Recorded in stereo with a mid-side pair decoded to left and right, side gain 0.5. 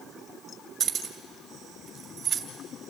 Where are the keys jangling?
40° right, 2 m.